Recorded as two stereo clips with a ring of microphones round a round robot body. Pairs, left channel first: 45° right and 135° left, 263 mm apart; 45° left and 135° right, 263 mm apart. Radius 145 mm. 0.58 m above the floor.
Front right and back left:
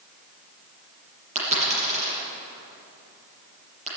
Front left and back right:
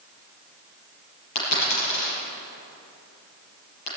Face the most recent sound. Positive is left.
turn(degrees=70)